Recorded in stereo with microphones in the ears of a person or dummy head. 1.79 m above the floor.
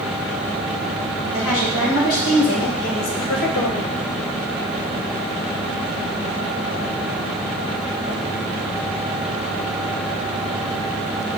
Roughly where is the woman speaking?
Left.